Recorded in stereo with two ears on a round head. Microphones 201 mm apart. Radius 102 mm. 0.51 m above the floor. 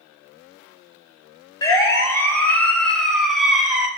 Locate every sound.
1.6 s a siren: 20° left (ahead or behind), 3.5 m; by 3.9 s 5° right (ahead or behind), 4.5 m